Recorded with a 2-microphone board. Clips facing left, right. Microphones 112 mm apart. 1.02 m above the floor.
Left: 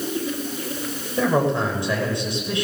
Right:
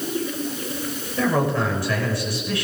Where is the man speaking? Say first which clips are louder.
Left 1 dB; 25° left (ahead or behind), 5.5 m.